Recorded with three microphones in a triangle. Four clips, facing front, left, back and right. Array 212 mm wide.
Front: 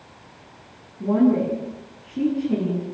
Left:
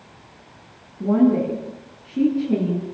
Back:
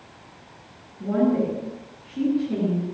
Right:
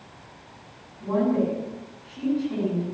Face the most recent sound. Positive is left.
turn(degrees=70)